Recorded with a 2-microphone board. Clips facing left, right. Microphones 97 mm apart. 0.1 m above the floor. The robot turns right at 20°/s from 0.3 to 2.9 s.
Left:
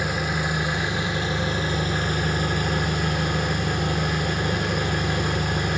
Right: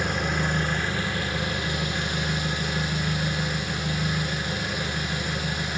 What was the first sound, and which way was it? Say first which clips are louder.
An engine running: left 1 dB; 5° left.